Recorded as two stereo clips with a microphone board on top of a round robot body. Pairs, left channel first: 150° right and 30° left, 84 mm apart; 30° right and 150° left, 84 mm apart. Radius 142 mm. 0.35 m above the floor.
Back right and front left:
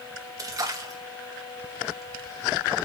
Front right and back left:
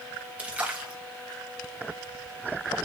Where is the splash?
75° left, 3.5 m.